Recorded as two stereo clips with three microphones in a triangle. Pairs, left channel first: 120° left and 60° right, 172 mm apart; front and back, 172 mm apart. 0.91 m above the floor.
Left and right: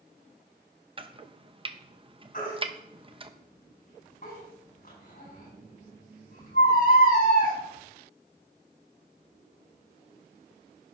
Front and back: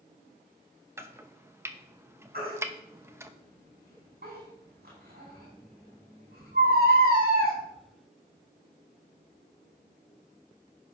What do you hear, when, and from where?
1.0 s chopping: 110° right, 0.7 m
2.3 s a baby crying: 155° left, 5.5 m